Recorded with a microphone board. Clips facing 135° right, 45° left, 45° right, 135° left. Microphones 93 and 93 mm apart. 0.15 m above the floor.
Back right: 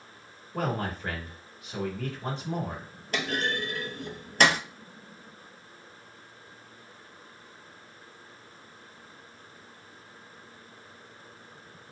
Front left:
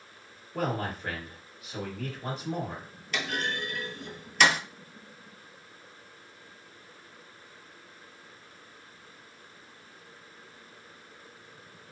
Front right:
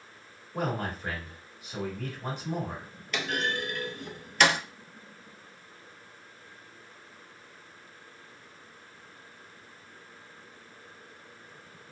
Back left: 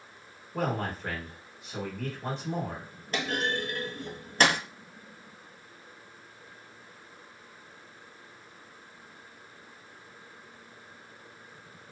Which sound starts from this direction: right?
A man speaking, at 0.5 s.